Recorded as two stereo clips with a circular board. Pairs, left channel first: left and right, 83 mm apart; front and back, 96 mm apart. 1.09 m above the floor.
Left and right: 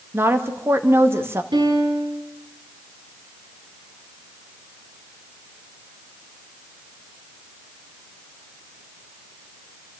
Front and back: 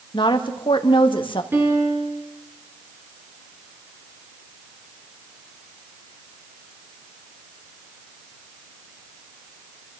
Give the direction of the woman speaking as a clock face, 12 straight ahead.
1 o'clock.